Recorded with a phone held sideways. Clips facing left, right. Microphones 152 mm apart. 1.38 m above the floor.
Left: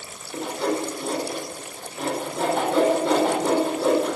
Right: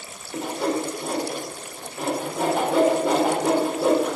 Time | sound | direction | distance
0.3 | sawing | 5° right (ahead or behind) | 4.5 m